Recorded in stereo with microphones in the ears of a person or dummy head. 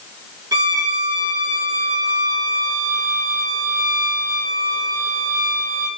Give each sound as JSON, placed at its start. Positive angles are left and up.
{"t": 0.5, "sound": "a violin", "side_deg": -15, "distance_m": 1.4}